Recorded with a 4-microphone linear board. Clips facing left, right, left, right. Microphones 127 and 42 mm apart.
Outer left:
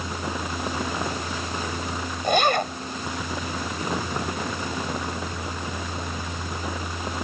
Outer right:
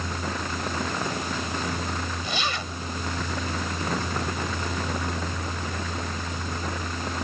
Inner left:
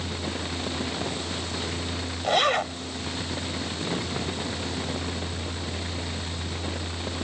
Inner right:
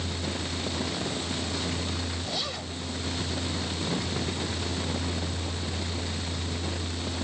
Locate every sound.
2.2 s a zipper: 55° left (ahead or behind)